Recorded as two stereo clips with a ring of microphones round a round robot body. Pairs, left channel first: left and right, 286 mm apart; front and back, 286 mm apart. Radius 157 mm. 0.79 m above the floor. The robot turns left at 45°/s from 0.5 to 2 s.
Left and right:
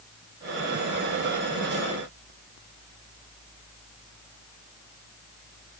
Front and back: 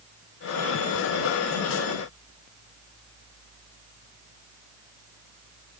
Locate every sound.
Only background noise.